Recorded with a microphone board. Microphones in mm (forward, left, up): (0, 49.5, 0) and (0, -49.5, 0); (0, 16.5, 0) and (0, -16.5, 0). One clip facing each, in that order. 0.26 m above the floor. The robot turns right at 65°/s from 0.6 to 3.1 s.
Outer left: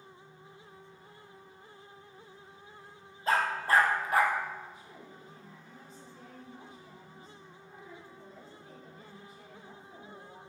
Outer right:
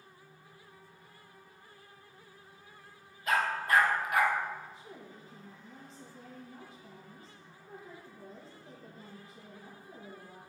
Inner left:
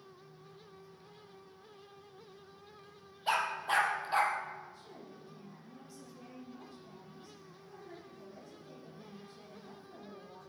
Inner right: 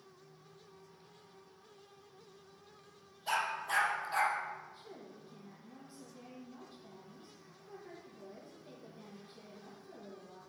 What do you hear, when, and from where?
3.3 s a dog barking: 30° left (ahead or behind), 2.0 m
4.7 s a woman speaking: 30° right (ahead or behind), 5 m